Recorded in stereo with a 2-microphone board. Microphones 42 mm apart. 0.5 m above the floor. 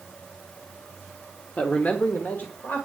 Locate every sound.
1.6 s a man speaking: 30° left (ahead or behind), 1.1 m; by 2.9 s 55° left (ahead or behind), 1.9 m